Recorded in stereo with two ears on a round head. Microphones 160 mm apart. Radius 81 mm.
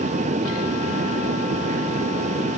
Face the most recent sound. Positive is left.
No sound to turn to.